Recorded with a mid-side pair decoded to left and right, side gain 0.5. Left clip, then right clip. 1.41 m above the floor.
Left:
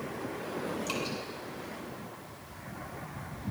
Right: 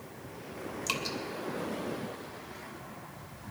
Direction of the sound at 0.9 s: 60° right.